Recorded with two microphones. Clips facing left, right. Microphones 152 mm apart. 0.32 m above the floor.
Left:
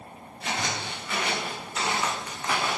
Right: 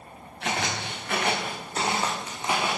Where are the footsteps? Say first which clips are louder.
Right 2 dB; 70° right (ahead or behind), 2 m; by 2.8 s 10° right (ahead or behind), 1.8 m.